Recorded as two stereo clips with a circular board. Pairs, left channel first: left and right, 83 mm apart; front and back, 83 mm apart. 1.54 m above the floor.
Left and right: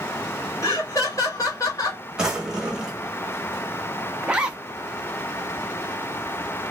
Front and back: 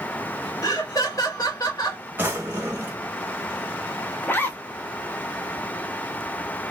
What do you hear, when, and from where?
0.6 s laughter: 45° left, 0.9 m
2.2 s a drawer: 160° right, 0.9 m
4.2 s a zipper: 25° right, 0.5 m